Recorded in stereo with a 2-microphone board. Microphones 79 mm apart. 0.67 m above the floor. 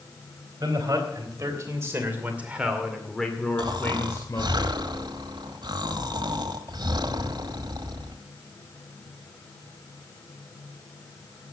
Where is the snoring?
75° right (ahead or behind), 1.1 m.